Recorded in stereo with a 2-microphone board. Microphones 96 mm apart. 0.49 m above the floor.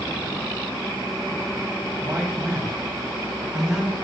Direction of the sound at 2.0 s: 30° right (ahead or behind).